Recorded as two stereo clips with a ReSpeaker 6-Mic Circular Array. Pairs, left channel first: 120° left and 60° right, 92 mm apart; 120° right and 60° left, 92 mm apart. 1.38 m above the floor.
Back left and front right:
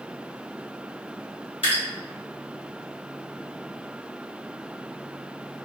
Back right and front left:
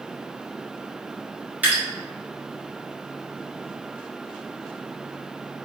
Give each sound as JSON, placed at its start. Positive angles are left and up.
{"t": 1.6, "sound": "dripping", "azimuth_deg": 130, "distance_m": 1.5}